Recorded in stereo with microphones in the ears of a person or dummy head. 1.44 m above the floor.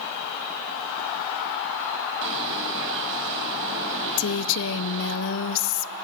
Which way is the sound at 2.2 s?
70° right (ahead or behind).